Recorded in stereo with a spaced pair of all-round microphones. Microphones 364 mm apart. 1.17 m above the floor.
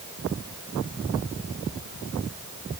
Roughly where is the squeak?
I don't hear a squeak.